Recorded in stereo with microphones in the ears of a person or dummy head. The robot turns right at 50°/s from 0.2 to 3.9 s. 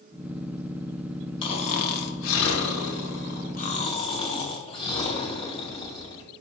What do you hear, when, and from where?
1.4 s snoring: 30° left, 0.6 m; by 6.3 s 155° left, 0.6 m